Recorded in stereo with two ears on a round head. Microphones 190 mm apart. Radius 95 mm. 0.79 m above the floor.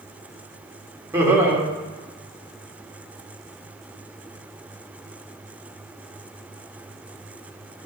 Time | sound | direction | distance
1.1 | laughter | 15° right (ahead or behind) | 2 m